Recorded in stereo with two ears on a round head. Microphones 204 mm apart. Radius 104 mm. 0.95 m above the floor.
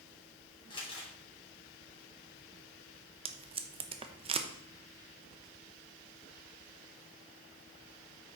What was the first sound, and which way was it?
Crumpling, 20° left (ahead or behind).